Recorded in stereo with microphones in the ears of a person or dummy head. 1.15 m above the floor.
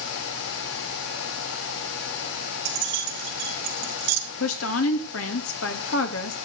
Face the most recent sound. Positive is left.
turn(degrees=65)  # may be behind; listen again after turning